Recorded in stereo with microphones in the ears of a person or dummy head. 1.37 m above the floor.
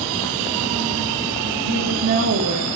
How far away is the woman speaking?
About 2.5 m.